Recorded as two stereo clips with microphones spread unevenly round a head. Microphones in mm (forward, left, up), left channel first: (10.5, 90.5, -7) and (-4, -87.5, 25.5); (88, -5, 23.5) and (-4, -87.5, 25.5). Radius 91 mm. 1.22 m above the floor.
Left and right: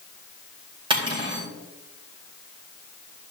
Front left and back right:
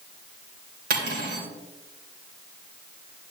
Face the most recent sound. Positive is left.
turn(degrees=-160)